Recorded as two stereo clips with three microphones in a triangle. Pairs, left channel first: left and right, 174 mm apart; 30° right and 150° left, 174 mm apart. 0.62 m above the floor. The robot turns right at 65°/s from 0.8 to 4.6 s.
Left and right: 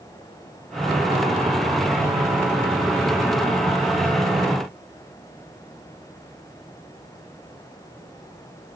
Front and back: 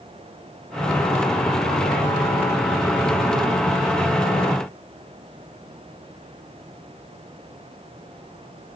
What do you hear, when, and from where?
Only background noise.